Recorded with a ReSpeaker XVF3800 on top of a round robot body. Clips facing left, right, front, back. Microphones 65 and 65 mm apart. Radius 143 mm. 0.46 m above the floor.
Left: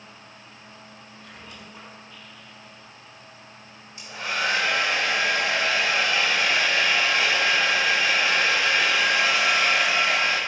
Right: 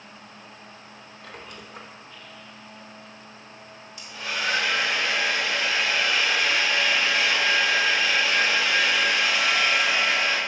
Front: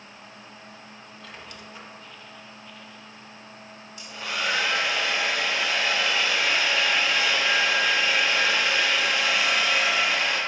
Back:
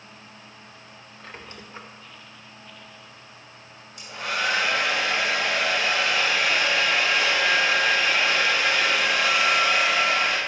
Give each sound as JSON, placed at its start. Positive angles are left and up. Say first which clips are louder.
{"t": 1.2, "sound": "a squeak", "louder": "right 3 dB, back 2 dB", "azimuth_deg": -120, "distance_m": 1.0}
{"t": 4.0, "sound": "a hair dryer", "louder": "left 3 dB, back 3 dB", "azimuth_deg": 150, "distance_m": 2.0}